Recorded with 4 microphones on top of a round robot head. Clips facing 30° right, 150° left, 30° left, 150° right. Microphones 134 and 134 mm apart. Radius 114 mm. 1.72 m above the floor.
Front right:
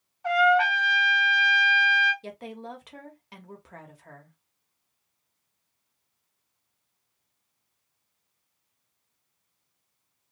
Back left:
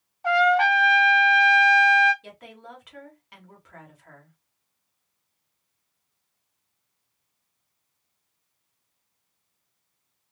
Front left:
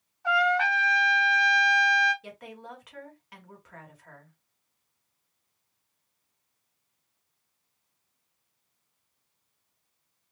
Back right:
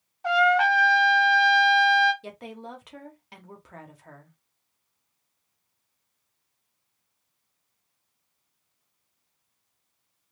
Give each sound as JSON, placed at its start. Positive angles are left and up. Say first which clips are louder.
{"t": 0.2, "sound": "a trumpet", "louder": "back left 2 dB, back right 4 dB", "azimuth_deg": -155, "distance_m": 1.2}
{"t": 2.2, "sound": "a woman speaking", "louder": "front right 5 dB, back right 4 dB", "azimuth_deg": -90, "distance_m": 0.9}